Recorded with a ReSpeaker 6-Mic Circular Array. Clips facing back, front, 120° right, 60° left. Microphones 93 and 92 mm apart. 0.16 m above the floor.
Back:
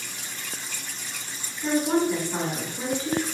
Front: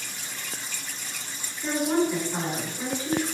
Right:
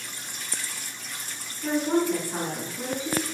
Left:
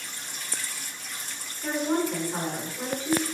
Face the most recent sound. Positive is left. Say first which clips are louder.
# back 1 dB, right 3 dB
turn(degrees=160)